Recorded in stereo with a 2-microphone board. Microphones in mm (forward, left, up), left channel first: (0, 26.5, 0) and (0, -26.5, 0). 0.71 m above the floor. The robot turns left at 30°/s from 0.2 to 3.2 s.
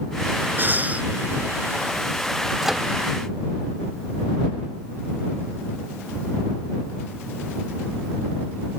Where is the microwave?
5° right (ahead or behind); by 2.9 s centre (ahead or behind).